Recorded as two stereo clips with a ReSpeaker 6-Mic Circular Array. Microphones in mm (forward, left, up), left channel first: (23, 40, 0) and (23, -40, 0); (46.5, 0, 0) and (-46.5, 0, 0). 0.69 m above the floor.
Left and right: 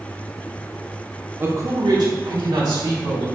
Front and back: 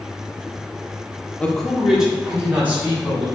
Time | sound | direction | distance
1.4 | a man speaking | 60° right | 0.6 m